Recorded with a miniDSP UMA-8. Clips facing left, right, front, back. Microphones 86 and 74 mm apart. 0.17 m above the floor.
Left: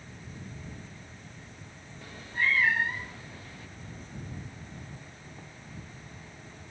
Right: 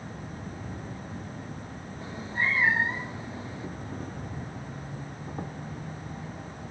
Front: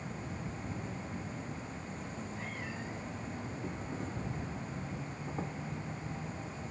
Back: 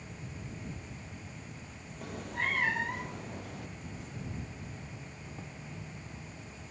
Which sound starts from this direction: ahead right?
An insect, at 0.0 s.